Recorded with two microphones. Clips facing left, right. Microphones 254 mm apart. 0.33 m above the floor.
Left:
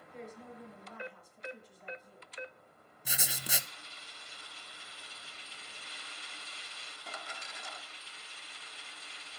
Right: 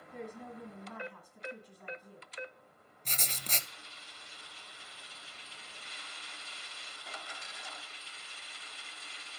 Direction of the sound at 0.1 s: 65° right (ahead or behind).